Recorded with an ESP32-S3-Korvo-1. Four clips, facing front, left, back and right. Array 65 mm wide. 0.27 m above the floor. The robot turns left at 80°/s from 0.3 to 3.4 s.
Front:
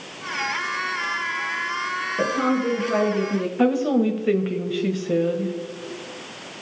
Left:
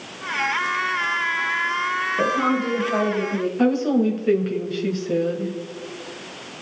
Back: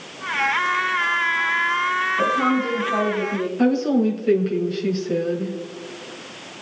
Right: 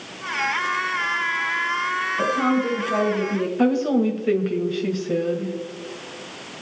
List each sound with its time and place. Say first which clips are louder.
2.2 s a woman speaking: even, front 1 dB; 55° left, 3.5 m; by 3.5 s 45° right, 3.5 m
3.6 s a woman speaking: even, back 1 dB; 10° right, 1.6 m